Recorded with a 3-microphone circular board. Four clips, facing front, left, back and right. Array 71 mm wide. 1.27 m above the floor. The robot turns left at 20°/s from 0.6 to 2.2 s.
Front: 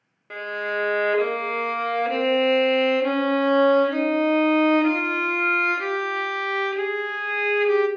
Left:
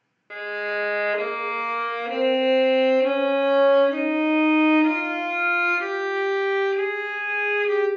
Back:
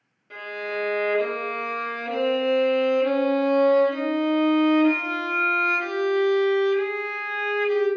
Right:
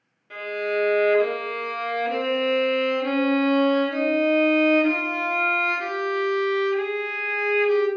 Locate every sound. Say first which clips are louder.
0.3 s a violin: right 1 dB, front 3 dB; 35° left, 0.7 m; by 7.9 s straight ahead, 0.7 m